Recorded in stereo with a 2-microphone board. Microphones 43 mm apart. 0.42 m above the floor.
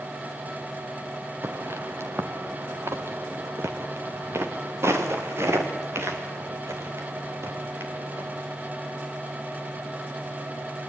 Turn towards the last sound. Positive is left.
turn(degrees=-70)  # may be behind; listen again after turning